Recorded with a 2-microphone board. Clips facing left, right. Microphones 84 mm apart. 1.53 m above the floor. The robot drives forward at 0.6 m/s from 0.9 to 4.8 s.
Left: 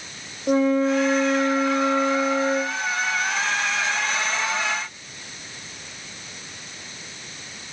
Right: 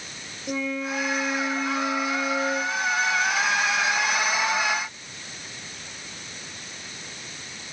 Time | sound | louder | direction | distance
0.5 | a flute | left 10 dB | 45° left (ahead or behind) | 1.9 m